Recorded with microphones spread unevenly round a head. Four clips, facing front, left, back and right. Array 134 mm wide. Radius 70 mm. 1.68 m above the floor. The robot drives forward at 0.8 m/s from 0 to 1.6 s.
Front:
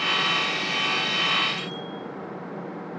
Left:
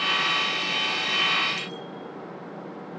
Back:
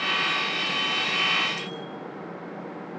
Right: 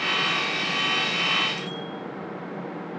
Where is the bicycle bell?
150° left, 5 m.